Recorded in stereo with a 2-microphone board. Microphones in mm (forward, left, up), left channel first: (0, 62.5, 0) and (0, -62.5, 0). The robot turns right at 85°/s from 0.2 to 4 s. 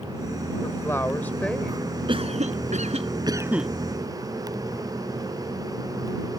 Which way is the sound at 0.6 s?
20° left (ahead or behind).